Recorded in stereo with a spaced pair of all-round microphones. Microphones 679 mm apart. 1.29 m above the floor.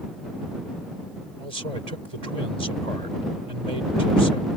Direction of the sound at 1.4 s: 65° right (ahead or behind).